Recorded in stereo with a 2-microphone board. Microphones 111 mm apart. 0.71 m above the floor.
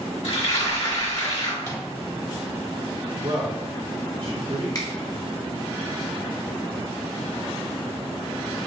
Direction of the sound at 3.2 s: 55° right (ahead or behind).